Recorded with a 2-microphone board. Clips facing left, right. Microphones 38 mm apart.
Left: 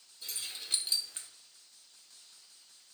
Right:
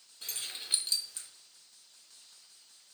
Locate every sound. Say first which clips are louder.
0.2 s keys jangling: right 1 dB; 65° right (ahead or behind), 1.0 m; by 1.3 s 45° left (ahead or behind), 0.9 m